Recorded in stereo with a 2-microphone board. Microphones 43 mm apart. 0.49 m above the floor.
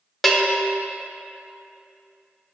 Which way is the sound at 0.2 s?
5° left (ahead or behind).